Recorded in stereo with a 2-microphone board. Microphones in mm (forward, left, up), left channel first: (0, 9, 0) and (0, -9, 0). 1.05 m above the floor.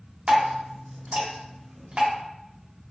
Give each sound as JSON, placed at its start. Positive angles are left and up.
{"t": 0.3, "sound": "dripping", "side_deg": -85, "distance_m": 1.4}